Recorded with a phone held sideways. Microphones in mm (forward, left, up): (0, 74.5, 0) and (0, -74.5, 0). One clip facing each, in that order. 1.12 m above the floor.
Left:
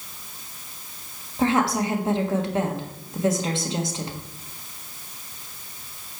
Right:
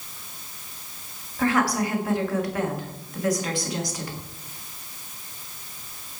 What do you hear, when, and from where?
1.4 s a woman speaking: 25° left (ahead or behind), 1.5 m